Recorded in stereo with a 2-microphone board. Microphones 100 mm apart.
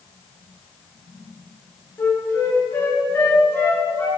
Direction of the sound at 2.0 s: 25° left (ahead or behind).